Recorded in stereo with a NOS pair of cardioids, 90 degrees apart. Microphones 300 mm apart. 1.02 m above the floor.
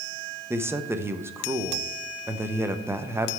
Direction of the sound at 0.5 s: 10° right.